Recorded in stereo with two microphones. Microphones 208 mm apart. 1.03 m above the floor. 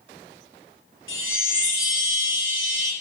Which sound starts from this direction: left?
A chime, at 1.1 s.